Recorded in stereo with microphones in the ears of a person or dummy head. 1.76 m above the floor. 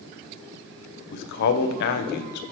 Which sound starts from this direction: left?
A man speaking, at 1.1 s.